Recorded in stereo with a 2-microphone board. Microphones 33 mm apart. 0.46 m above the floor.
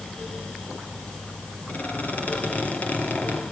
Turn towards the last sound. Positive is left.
turn(degrees=55)  # may be behind; listen again after turning